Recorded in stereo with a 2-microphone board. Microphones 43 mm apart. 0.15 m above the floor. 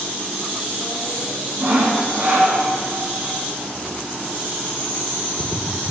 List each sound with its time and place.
1.6 s sawing: 50° right (ahead or behind), 5.5 m